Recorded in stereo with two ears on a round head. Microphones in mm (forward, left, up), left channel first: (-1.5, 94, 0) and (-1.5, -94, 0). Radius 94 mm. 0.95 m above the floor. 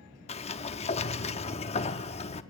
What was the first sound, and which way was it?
A sliding door, 30° left (ahead or behind).